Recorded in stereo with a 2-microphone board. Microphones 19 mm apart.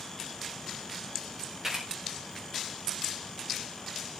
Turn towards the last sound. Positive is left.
turn(degrees=-20)  # may be behind; listen again after turning